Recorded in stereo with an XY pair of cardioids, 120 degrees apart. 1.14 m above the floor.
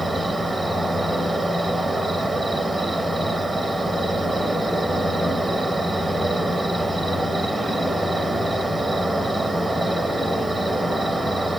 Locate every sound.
0.0 s an insect: 10° right, 0.8 m